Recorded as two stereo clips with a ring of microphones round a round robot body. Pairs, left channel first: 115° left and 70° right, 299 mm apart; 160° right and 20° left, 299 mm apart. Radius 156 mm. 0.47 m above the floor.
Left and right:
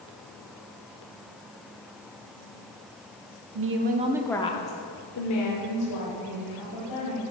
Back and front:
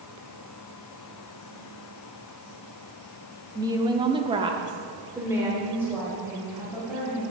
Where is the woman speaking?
50° right, 1.0 m; by 7.2 s 110° left, 3 m.